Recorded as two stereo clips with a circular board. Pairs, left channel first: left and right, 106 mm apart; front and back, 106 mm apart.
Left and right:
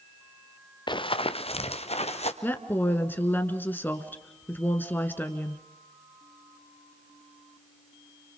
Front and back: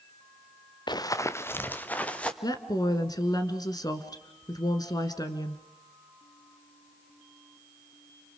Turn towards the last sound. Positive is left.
turn(degrees=25)